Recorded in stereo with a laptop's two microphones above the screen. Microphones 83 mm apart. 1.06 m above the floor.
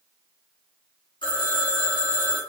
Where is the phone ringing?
75° left (ahead or behind), 0.9 m.